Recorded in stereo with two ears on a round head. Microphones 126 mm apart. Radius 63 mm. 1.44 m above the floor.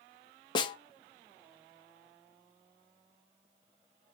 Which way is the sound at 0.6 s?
30° left (ahead or behind).